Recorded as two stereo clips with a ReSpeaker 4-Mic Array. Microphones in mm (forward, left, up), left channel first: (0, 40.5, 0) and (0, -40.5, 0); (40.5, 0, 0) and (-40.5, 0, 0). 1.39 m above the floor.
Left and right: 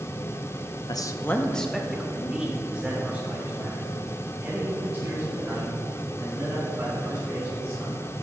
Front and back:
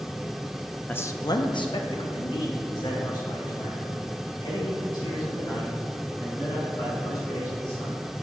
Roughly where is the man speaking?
Ahead left.